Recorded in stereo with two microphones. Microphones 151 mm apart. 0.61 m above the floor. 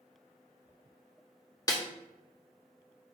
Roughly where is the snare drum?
Left.